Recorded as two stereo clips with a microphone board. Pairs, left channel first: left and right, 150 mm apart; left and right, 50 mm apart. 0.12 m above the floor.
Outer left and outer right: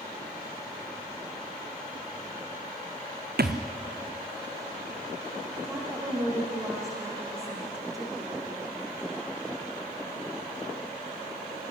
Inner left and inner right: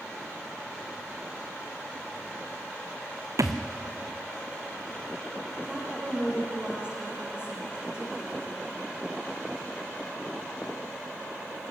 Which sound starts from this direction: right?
A thud, at 3.4 s.